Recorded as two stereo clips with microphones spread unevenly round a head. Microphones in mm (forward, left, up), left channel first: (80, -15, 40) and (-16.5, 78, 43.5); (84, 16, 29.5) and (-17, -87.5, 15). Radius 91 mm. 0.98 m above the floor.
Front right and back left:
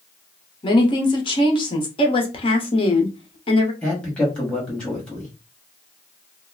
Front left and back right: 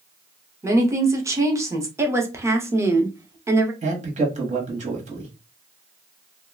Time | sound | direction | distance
0.6 | a woman speaking | 80° right | 0.9 m
2.0 | a woman speaking | 75° right | 0.9 m
3.8 | a man speaking | 125° right | 1.4 m